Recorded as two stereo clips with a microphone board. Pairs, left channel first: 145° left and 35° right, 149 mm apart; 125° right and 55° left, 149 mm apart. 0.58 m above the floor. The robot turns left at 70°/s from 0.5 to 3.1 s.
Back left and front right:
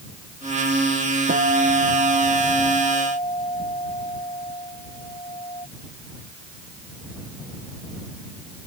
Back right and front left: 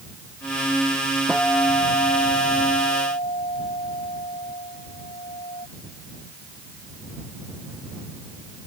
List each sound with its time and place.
1.3 s a guitar: 35° right; by 5.7 s 165° right